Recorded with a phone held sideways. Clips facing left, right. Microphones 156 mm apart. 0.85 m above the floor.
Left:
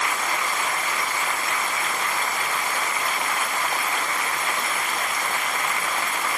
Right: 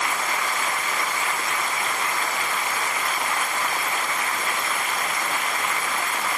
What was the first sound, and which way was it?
Only background noise.